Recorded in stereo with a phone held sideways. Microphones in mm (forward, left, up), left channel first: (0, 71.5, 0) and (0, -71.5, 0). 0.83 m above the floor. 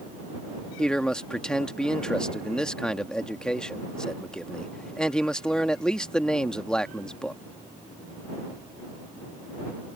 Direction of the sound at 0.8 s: 5° left (ahead or behind).